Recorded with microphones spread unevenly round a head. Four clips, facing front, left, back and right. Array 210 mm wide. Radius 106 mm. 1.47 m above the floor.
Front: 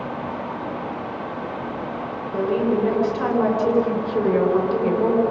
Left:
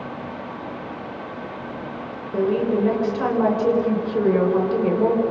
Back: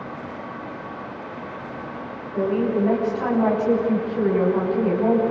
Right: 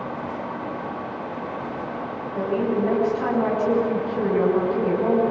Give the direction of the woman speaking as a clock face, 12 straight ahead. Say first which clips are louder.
Left 3 dB, front 1 dB; 10 o'clock.